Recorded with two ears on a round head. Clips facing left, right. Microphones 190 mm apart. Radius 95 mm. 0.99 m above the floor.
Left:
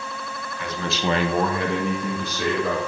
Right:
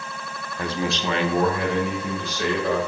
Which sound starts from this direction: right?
A man speaking, at 0.6 s.